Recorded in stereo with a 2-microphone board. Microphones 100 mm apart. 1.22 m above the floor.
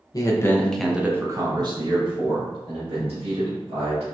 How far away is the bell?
I don't hear a bell.